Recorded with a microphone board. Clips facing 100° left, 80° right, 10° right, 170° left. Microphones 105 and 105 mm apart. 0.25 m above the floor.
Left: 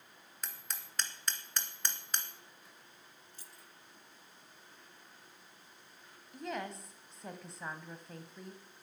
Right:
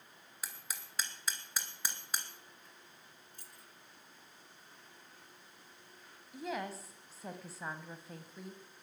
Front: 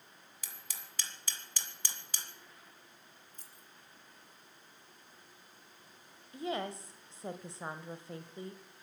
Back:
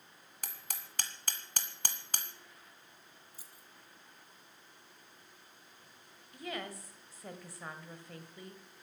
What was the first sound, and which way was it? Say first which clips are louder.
Hammering: even, back 5 dB; 165° right.